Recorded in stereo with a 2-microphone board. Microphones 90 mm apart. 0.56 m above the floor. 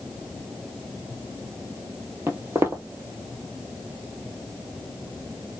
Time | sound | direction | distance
2.3 | footsteps | 30° right (ahead or behind) | 0.8 m